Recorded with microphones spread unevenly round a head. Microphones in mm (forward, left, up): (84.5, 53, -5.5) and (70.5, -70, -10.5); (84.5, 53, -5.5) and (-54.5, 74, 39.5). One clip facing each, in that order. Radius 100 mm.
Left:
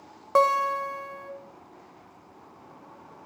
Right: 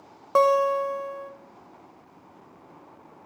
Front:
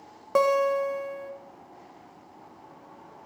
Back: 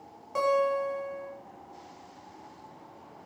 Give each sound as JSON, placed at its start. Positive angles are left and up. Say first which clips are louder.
{"t": 0.3, "sound": "a guitar", "louder": "right 3 dB, front 4 dB", "azimuth_deg": -10, "distance_m": 0.9}